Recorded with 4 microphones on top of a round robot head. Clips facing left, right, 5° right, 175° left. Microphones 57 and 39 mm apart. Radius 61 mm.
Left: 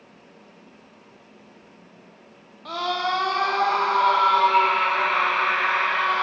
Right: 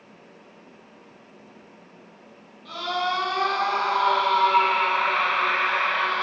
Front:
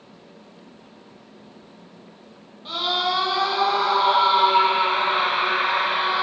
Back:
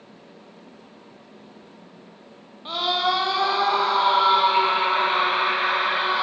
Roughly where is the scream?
Behind left.